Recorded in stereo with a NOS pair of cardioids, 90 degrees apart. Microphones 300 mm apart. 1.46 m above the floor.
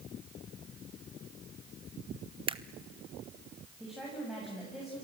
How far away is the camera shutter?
About 0.9 m.